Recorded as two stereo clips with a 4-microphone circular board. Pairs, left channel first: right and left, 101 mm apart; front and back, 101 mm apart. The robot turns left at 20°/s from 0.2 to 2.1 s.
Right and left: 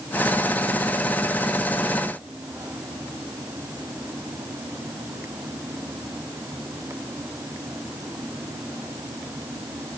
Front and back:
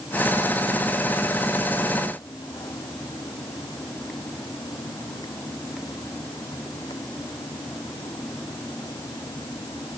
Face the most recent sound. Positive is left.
No sound to turn to.